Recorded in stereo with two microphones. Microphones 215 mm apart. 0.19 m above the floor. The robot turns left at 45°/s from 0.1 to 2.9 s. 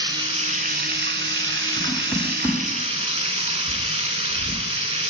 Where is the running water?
20° right, 0.7 m; by 5.1 s 150° right, 0.7 m.